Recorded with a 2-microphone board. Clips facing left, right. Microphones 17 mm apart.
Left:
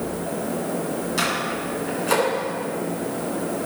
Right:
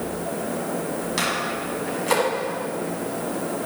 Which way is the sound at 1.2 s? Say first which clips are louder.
Left 1 dB; 20° right (ahead or behind).